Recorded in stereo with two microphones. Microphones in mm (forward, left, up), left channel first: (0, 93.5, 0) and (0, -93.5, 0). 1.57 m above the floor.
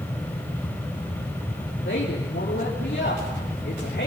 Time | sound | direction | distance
1.9 | a woman speaking | 85° left | 3.5 m